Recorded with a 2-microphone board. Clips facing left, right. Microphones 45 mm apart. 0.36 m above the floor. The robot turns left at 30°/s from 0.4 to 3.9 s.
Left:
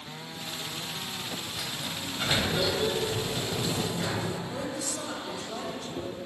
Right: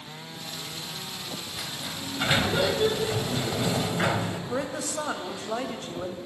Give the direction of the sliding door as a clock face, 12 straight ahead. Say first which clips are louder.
Even; 12 o'clock.